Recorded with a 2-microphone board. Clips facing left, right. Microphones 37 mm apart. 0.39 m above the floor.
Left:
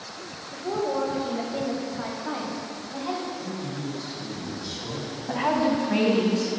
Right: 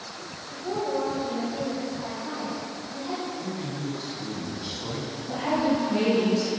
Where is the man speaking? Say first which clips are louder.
Even; 70° right (ahead or behind), 3 m.